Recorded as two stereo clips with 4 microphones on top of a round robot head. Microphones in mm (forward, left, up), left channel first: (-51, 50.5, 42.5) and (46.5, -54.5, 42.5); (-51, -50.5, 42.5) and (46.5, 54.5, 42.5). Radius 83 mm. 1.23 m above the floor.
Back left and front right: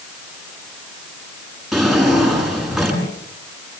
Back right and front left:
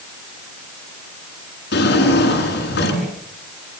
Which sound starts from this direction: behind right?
A drawer, at 1.7 s.